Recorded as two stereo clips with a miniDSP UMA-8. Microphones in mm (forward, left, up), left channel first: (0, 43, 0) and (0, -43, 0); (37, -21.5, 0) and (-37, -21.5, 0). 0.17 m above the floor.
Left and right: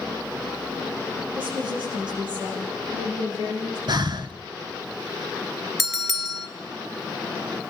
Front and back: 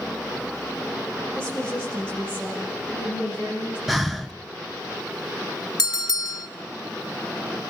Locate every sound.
1.4 s a woman speaking: 80° right, 9.5 m; by 3.8 s 65° right, 12.5 m
3.9 s breathing: 95° right, 1.1 m
5.8 s a bell: straight ahead, 1.8 m